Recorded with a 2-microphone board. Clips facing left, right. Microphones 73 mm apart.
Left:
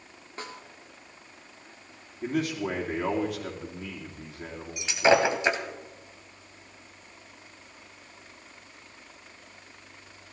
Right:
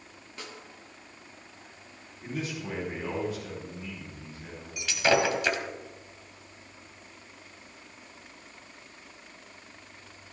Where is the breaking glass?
20° left (ahead or behind), 1.5 m.